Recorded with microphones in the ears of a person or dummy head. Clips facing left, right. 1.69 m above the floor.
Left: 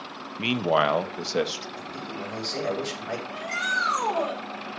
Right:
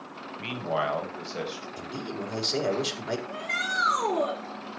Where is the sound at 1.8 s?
50° right (ahead or behind), 4.5 m.